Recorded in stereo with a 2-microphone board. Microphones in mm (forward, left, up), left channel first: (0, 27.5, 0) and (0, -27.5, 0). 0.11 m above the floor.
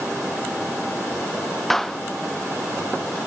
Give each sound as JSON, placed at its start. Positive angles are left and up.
{"t": 1.7, "sound": "a clap", "side_deg": 5}